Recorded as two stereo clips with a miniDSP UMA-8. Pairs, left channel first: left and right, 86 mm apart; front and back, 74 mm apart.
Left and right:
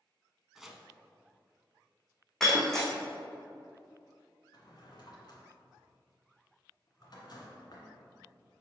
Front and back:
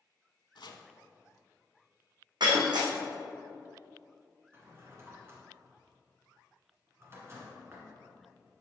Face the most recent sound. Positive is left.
turn(degrees=125)